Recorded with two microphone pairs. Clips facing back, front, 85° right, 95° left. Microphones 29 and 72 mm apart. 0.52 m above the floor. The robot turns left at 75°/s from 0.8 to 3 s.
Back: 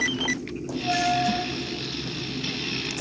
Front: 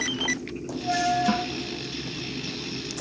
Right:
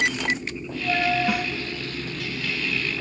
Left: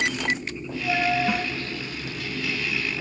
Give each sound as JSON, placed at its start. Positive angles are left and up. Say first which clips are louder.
{"t": 1.3, "sound": "a snare drum", "louder": "front 1 dB, right 1 dB", "azimuth_deg": 5}